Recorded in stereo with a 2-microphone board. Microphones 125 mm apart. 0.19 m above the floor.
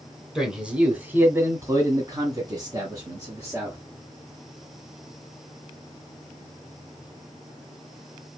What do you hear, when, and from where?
0.3 s a man speaking: 5° right (ahead or behind), 1.9 m; by 3.8 s 25° right (ahead or behind), 3 m